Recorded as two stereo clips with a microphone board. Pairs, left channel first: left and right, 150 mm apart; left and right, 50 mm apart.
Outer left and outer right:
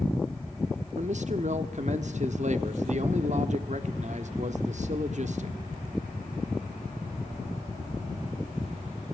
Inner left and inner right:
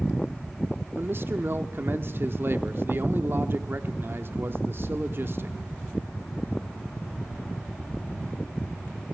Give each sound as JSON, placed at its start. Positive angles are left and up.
{"t": 0.9, "sound": "a man speaking", "side_deg": -50, "distance_m": 1.3}